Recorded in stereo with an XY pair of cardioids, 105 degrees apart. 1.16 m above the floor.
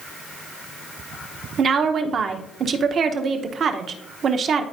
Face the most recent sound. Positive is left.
turn(degrees=-55)